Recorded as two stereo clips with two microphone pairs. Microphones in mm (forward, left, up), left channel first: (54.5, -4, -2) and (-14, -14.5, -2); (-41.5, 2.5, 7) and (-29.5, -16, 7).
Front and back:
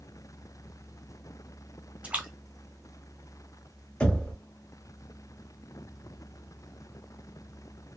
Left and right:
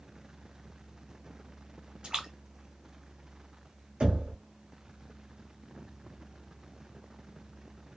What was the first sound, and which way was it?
A splash, 100° right.